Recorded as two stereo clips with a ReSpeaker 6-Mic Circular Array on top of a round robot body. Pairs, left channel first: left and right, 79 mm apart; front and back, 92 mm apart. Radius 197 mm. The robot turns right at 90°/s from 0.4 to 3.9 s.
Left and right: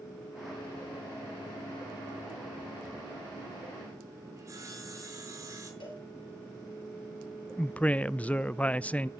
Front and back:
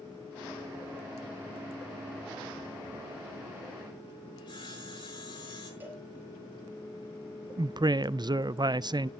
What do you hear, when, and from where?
4.4 s sawing: 40° right, 6 m
5.8 s a cowbell: 110° left, 4 m
7.6 s a woman speaking: 160° left, 0.5 m